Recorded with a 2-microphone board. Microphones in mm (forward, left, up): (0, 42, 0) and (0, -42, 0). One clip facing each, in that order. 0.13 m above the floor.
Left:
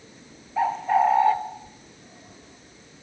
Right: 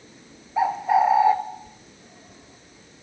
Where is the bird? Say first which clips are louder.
Right 1 dB; 10° right (ahead or behind), 0.7 m.